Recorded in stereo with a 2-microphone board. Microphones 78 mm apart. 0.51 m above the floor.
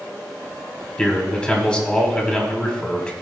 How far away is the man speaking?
About 1.9 m.